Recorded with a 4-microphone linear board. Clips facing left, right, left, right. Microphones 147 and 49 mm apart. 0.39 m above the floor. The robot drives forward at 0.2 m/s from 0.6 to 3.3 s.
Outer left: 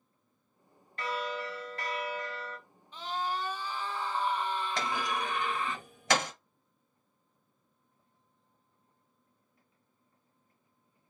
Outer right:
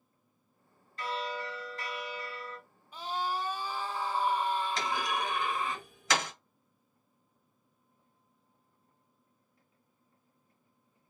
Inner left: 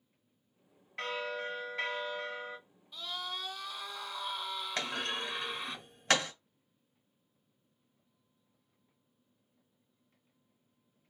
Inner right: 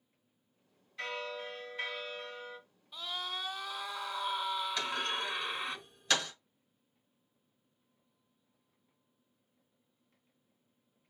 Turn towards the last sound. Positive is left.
turn(degrees=60)  # may be behind; listen again after turning